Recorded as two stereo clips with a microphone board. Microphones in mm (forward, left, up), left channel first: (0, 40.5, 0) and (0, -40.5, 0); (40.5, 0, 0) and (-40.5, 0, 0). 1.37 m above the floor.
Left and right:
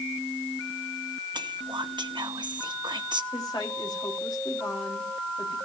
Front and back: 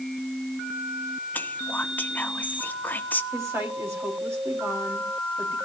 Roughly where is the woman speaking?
Behind left.